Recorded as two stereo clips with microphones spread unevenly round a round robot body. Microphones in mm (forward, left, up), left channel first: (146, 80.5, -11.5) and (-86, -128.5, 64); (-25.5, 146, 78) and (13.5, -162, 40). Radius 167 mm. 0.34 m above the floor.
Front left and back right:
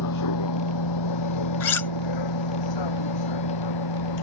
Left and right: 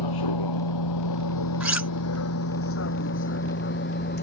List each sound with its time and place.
0.0 s a vehicle: 80° left; by 4.2 s 40° left
1.6 s cutlery clinking: straight ahead